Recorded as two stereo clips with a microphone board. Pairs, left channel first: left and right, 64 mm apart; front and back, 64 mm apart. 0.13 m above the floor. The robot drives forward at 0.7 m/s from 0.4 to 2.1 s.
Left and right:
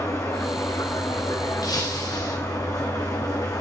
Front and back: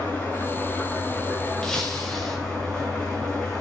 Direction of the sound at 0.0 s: 65° left.